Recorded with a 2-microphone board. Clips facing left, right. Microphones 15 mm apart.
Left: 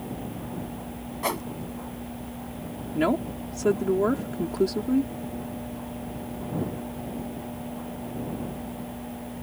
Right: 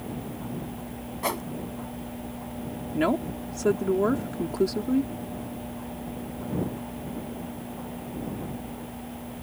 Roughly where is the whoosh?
Centre.